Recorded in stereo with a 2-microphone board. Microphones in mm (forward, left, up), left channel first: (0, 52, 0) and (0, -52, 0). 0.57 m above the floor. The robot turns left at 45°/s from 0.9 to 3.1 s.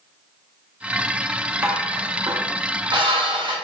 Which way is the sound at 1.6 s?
25° right (ahead or behind).